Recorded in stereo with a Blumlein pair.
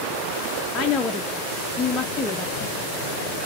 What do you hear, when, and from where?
0.7 s a woman speaking: 20° left, 0.8 m